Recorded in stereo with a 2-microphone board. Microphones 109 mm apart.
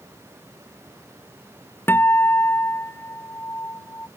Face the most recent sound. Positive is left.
turn(degrees=20)  # may be behind; listen again after turning